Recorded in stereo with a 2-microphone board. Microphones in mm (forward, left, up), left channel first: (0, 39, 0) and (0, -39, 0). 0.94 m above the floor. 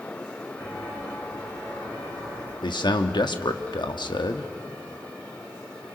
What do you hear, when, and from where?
0.6 s footsteps: 25° left (ahead or behind), 7.5 m; by 2.5 s 30° left (ahead or behind), 8.5 m
2.6 s a man speaking: 70° left (ahead or behind), 1.3 m